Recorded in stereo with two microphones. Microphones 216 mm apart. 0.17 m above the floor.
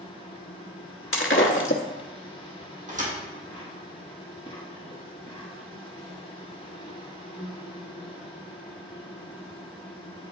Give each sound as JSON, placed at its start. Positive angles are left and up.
{"t": 0.0, "sound": "an insect", "side_deg": 25, "distance_m": 1.7}
{"t": 1.1, "sound": "breaking glass", "side_deg": 65, "distance_m": 0.8}
{"t": 2.9, "sound": "a thud", "side_deg": -35, "distance_m": 2.0}